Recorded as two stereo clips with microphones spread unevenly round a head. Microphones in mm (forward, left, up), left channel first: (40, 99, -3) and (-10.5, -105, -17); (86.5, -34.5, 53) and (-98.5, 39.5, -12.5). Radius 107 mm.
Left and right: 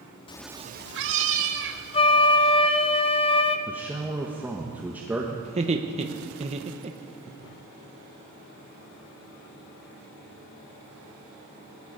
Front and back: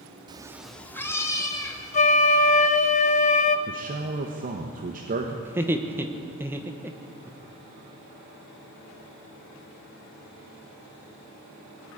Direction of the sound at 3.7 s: 175° left.